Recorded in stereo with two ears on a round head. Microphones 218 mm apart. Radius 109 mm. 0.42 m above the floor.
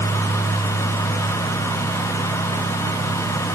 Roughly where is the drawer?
No drawer in this recording.